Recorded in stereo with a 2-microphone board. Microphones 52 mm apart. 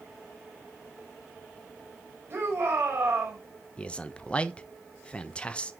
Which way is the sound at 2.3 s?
45° right (ahead or behind).